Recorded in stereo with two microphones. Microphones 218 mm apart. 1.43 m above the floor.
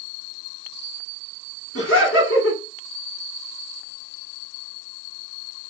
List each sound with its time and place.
1.8 s laughter: 75° left (ahead or behind), 1.9 m